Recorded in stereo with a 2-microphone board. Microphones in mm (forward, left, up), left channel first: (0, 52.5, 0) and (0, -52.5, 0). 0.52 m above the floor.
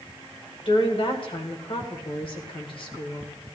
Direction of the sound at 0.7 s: 55° left (ahead or behind).